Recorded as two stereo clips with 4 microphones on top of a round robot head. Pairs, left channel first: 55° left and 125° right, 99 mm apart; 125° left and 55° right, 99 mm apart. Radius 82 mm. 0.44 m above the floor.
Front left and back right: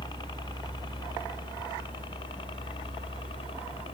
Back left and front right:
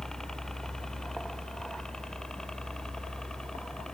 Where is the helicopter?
45° left.